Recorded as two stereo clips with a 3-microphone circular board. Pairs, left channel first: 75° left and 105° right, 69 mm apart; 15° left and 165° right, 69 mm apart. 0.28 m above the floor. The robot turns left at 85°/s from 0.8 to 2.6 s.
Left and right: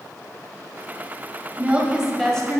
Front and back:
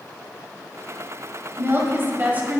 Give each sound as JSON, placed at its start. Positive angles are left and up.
{"t": 1.6, "sound": "a woman speaking", "azimuth_deg": -145, "distance_m": 1.4}